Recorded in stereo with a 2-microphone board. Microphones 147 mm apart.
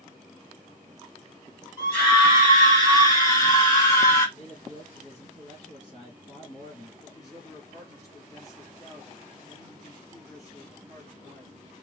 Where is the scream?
25° left (ahead or behind), 2 m; by 4.3 s 20° left (ahead or behind), 1.2 m.